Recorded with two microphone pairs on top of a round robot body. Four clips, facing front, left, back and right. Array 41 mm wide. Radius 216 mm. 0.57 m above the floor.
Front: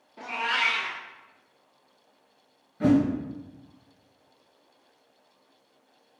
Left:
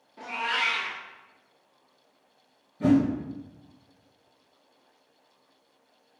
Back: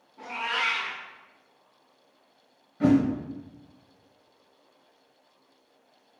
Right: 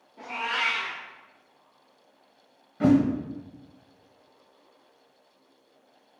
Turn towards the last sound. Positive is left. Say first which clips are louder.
# right 2 dB, back 1 dB
turn(degrees=-95)